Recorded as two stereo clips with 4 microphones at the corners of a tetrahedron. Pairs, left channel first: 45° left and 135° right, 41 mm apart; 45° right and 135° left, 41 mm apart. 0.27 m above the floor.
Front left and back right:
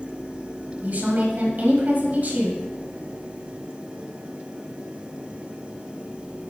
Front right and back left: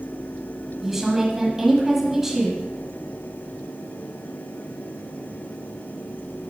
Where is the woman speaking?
150° right, 1.5 m.